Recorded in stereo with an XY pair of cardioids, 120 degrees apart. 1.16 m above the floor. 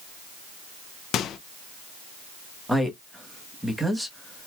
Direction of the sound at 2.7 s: Straight ahead.